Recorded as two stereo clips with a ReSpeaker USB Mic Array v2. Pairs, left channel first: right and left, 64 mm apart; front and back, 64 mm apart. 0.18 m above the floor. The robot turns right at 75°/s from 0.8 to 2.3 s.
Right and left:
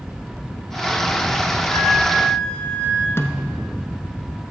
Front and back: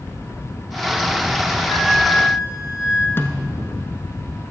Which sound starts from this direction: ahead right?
A snare drum, at 3.2 s.